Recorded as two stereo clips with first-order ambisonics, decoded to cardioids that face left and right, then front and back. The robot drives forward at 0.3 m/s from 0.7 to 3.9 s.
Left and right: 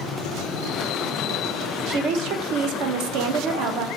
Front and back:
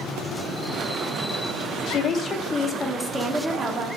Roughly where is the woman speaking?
Ahead right.